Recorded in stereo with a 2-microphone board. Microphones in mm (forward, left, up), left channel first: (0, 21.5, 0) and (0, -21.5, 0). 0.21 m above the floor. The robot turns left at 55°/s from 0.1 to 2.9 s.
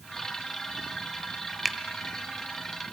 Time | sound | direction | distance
1.6 | a finger snap | centre (ahead or behind) | 0.8 m